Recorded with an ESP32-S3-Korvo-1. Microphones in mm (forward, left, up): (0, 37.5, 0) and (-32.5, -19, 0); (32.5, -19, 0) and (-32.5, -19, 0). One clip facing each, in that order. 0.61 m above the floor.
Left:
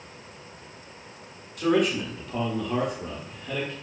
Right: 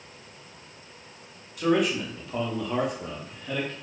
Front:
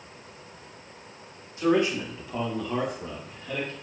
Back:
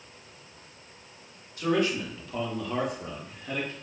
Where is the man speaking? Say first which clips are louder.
Left 1 dB, front 3 dB; 35° right, 1.2 m; by 3.7 s 155° left, 1.1 m.